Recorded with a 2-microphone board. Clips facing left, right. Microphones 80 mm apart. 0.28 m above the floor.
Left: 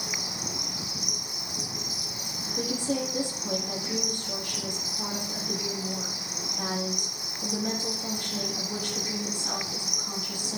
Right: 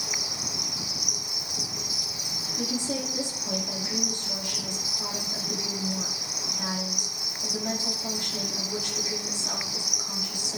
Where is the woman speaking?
50° left (ahead or behind), 8.5 m.